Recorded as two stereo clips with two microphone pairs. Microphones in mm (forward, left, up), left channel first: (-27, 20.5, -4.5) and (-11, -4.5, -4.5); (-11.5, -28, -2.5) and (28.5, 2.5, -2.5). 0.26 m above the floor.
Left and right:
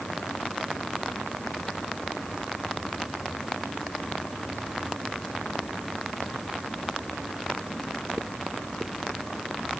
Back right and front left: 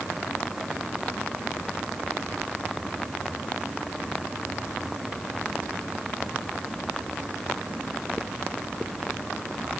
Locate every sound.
Only background noise.